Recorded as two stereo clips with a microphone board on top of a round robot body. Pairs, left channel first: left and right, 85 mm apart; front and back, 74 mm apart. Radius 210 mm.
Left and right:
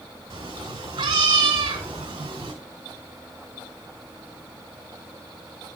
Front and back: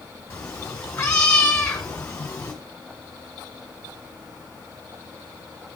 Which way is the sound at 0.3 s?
75° right.